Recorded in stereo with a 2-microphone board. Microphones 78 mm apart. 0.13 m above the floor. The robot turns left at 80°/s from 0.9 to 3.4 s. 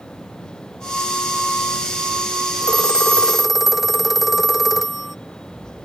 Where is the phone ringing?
60° left; by 5.2 s 5° right.